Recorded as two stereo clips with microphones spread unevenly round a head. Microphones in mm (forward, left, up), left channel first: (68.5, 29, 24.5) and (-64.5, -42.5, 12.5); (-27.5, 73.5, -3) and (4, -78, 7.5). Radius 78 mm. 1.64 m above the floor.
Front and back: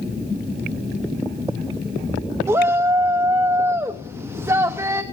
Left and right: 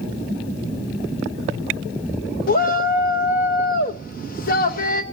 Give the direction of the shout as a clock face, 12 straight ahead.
8 o'clock.